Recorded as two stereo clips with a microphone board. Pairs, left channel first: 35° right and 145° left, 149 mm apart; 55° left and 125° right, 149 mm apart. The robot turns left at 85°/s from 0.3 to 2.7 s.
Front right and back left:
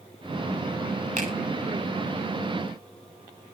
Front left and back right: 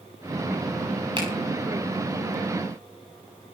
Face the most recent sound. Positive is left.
turn(degrees=45)